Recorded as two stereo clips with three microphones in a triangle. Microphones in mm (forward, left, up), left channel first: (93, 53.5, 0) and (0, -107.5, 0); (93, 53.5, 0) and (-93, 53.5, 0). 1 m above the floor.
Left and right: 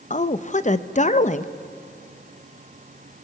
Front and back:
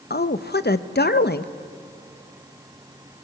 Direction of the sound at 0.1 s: 15° left.